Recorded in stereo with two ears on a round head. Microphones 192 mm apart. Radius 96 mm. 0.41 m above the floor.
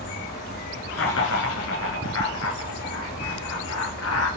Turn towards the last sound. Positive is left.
turn(degrees=80)